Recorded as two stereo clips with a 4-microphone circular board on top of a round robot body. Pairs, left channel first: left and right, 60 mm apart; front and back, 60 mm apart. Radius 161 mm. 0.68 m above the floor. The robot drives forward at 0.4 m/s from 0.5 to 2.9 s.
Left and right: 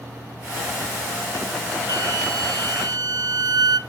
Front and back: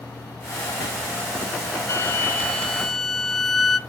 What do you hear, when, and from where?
1.9 s a flute: 50° right, 0.7 m; by 3.8 s 90° right, 0.5 m